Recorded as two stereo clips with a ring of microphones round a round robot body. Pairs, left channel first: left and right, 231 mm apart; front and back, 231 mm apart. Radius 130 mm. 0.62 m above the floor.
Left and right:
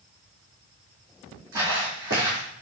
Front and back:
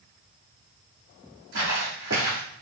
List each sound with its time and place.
1.5 s footsteps: 135° right, 2.5 m